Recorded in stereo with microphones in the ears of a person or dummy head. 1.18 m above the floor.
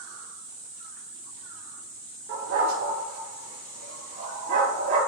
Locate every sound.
2.3 s a dog barking: 75° right (ahead or behind), 5 m; by 5.0 s 65° right (ahead or behind), 6.5 m